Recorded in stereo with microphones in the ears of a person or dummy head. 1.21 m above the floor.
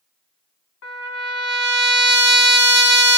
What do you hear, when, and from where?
0.8 s a trumpet: 60° left (ahead or behind), 1.5 m